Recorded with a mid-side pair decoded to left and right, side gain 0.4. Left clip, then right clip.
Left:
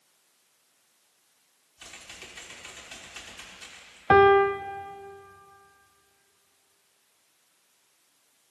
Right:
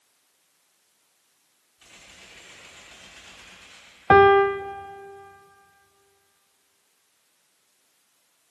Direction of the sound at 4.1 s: 25° right.